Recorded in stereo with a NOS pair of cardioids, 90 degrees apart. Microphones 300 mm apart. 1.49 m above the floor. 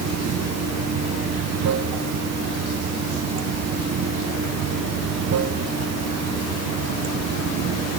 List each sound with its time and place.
0.0 s running water: 55° right, 0.9 m